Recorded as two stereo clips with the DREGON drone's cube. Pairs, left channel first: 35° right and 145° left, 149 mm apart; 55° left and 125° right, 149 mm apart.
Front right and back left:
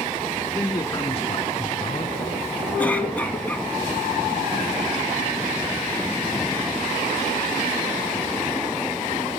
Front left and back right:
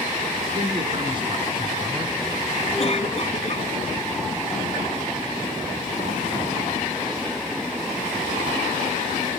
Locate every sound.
0.5 s a man speaking: 100° right, 2 m; by 2.2 s 60° right, 2 m
2.8 s a cough: 40° left, 2 m